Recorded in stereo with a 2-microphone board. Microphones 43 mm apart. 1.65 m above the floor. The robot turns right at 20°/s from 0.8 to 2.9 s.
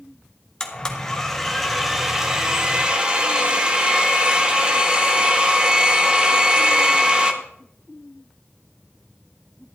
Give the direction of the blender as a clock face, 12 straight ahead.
7 o'clock.